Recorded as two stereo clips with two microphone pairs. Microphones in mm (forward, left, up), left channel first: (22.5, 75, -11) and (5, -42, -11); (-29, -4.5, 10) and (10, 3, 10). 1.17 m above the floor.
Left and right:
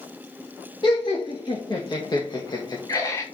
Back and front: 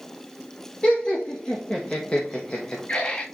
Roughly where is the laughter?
Behind left.